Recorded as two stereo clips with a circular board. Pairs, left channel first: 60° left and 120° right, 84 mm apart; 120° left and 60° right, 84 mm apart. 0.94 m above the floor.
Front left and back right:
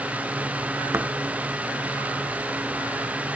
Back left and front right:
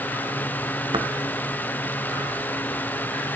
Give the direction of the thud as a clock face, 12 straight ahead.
2 o'clock.